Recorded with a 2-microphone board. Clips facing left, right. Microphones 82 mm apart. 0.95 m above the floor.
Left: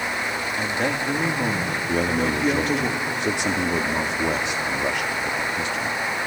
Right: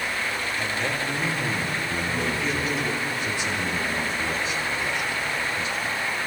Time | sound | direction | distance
0.6 | a man speaking | 50° left (ahead or behind) | 2 m
1.9 | a man speaking | 75° left (ahead or behind) | 1.9 m